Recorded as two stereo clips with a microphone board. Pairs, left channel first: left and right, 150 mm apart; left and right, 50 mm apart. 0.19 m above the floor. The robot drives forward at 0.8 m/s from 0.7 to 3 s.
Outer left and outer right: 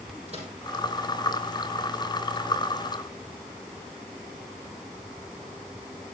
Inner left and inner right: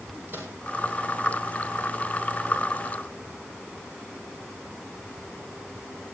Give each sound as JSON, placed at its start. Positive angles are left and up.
{"t": 0.3, "sound": "a microwave", "side_deg": -45, "distance_m": 5.5}